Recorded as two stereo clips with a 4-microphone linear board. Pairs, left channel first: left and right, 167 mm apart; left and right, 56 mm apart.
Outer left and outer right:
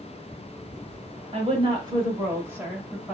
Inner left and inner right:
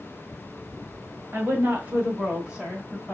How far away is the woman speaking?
About 1.6 m.